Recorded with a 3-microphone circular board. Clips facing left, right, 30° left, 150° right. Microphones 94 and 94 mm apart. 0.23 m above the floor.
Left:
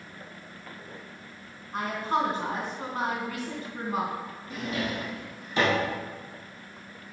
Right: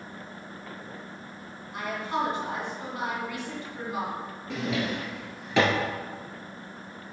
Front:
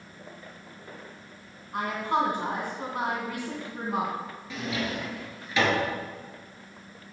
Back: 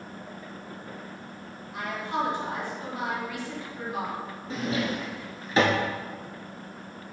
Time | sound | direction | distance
1.7 | a woman speaking | 40° left | 2.5 m
4.5 | a drawer | 100° right | 1.2 m